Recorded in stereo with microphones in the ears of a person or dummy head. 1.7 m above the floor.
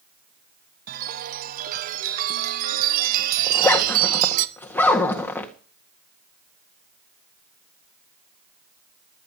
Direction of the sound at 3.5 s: 10° left (ahead or behind).